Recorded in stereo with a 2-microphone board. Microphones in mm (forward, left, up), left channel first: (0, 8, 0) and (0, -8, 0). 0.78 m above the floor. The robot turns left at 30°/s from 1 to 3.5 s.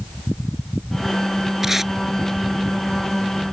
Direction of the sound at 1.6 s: 30° right (ahead or behind).